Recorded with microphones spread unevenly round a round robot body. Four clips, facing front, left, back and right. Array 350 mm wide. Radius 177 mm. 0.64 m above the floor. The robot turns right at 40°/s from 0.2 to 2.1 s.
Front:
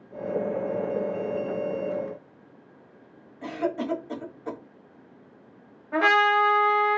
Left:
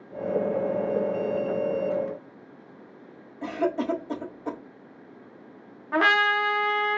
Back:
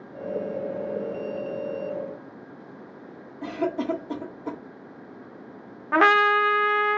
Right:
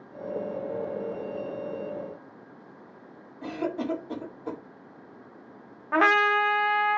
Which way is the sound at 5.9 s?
Straight behind.